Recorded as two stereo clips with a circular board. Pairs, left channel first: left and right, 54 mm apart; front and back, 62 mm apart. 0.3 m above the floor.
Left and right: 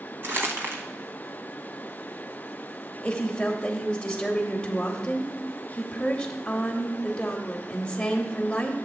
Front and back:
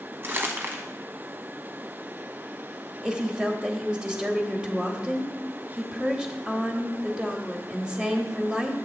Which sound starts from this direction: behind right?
Crumpling, at 0.2 s.